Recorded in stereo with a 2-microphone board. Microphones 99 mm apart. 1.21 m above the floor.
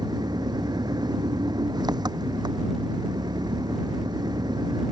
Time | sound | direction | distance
0.0 | an engine running | 45° right (ahead or behind) | ?